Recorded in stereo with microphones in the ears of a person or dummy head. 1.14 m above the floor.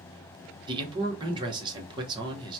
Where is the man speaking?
25° right (ahead or behind), 0.9 m.